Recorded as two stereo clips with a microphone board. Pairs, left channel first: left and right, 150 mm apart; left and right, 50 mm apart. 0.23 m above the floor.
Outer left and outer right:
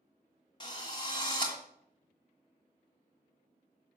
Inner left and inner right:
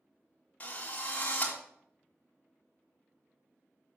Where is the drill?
30° left (ahead or behind), 1.9 m.